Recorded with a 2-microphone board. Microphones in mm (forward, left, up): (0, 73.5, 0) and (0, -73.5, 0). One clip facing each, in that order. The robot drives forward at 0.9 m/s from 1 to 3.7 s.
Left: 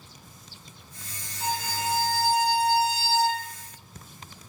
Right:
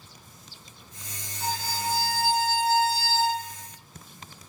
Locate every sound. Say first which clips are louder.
1.4 s a violin: left 1 dB; 50° left (ahead or behind), 1.8 m; by 3.4 s 30° left (ahead or behind), 3 m